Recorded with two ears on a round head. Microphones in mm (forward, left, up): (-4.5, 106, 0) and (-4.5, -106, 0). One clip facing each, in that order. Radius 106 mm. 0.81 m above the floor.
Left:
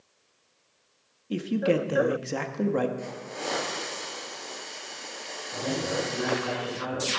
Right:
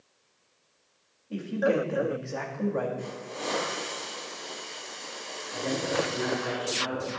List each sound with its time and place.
1.3 s a man speaking: 50° left (ahead or behind), 1.5 m
3.0 s a hiss: 20° left (ahead or behind), 8.5 m
5.5 s a man speaking: 30° left (ahead or behind), 6.5 m